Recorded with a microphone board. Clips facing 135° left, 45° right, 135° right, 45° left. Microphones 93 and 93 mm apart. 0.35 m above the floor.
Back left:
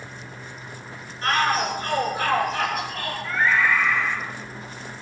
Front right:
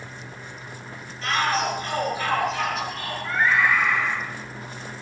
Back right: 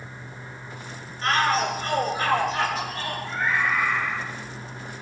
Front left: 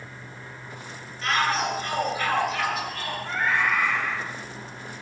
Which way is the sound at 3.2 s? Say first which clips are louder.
Even, front left 1 dB; 30° left.